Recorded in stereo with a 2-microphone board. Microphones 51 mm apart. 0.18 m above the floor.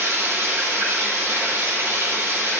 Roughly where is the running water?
Right.